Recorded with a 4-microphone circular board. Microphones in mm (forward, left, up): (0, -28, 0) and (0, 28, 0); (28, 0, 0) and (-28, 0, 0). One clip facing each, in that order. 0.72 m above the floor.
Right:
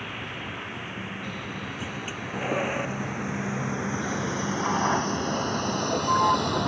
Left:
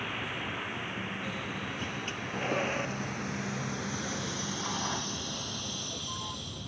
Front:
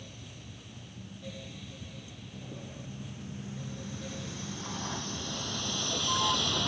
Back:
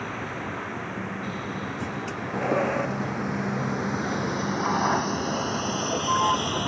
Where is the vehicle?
Straight behind; by 6.7 s 110° right.